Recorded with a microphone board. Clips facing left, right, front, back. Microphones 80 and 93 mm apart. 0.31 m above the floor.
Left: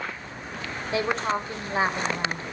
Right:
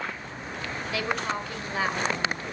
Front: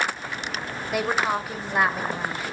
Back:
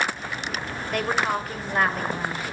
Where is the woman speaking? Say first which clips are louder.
Left 4 dB, front 1 dB; 75° left, 1.4 m.